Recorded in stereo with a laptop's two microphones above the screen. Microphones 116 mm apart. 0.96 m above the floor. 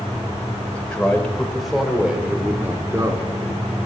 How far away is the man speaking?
About 5 m.